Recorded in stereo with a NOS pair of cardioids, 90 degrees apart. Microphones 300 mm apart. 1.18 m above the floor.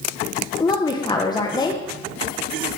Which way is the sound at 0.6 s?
15° left.